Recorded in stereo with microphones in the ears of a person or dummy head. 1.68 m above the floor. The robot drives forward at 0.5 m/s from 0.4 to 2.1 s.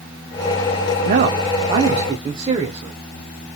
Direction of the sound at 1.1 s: 50° right (ahead or behind).